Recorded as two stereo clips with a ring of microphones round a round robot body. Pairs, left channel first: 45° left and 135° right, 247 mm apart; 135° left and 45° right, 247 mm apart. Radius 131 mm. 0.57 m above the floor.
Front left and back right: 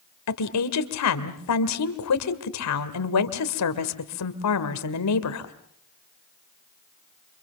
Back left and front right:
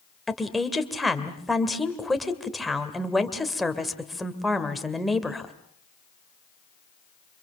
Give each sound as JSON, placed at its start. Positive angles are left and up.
{"t": 0.3, "sound": "a woman speaking", "azimuth_deg": 45, "distance_m": 2.0}